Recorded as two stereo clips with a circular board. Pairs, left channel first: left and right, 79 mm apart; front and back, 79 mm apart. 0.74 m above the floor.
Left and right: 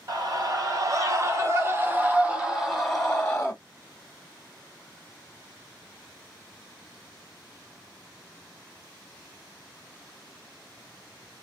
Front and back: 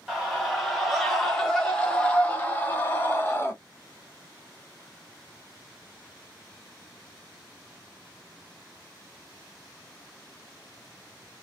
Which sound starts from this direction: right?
A scream, at 0.1 s.